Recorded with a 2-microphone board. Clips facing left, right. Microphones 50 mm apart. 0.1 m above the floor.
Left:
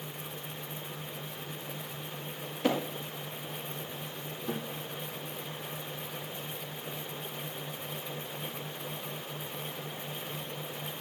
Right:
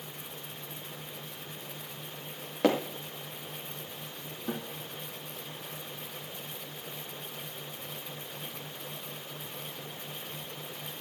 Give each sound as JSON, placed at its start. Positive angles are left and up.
{"t": 2.6, "sound": "hammering", "side_deg": -85, "distance_m": 4.5}
{"t": 4.5, "sound": "a guitar", "side_deg": -25, "distance_m": 3.0}